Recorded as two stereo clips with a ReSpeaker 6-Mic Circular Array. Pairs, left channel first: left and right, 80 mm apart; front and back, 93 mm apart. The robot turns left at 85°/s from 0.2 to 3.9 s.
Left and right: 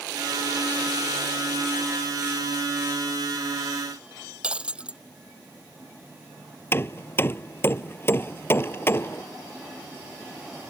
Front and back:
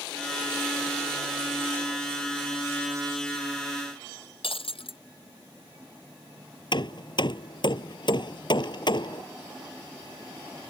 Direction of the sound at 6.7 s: 30° left.